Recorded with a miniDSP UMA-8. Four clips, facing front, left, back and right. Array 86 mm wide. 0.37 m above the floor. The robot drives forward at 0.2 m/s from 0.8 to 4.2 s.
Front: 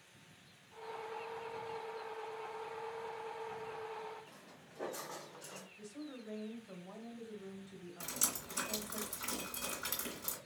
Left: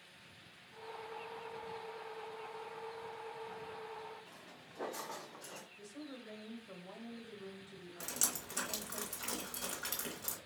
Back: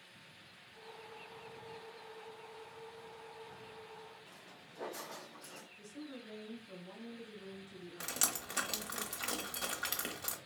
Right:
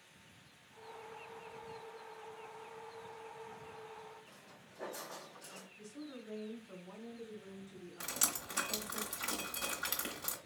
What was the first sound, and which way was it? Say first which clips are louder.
Footsteps: left 3 dB, back 1 dB; 100° left.